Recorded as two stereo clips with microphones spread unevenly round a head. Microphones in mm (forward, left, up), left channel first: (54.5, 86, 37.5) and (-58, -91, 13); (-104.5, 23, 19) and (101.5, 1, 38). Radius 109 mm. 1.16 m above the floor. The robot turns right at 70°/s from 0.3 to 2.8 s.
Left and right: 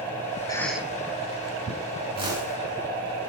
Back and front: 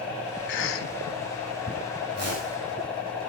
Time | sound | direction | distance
0.5 | a cough | 130° left | 2.5 m
2.1 | a whoosh | 55° right | 8 m